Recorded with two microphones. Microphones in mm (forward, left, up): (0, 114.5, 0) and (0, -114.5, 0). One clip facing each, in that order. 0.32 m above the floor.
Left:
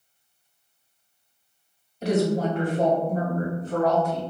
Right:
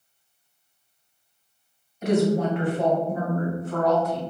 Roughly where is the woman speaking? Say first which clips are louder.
Right 1 dB; left.